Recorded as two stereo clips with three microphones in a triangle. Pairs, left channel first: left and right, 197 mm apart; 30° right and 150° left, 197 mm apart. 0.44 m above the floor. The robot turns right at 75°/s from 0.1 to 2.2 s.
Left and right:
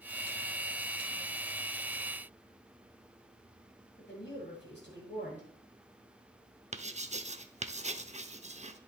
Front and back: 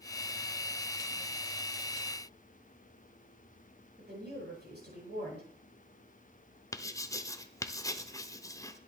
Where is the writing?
90° right, 0.6 m.